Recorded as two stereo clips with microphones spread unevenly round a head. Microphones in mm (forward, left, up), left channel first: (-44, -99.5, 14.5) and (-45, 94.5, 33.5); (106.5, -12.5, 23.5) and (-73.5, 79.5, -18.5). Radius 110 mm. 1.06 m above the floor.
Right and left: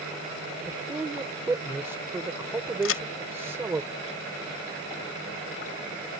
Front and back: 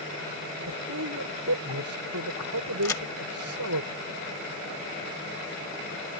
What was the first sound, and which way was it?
A man speaking, 170° left.